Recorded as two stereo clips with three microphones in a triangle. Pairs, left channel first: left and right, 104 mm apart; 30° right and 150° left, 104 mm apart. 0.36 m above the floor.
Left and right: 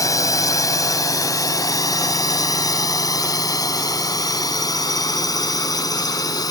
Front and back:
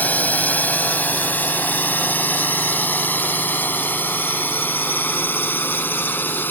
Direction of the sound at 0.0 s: 40° left.